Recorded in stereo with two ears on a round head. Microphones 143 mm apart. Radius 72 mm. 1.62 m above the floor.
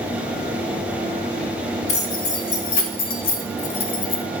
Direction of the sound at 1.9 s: 45° left (ahead or behind).